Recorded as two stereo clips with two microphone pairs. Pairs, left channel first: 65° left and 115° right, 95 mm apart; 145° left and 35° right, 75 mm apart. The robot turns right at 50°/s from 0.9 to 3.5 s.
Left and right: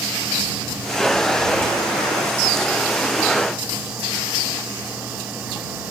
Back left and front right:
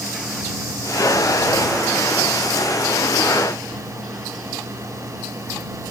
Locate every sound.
Only background noise.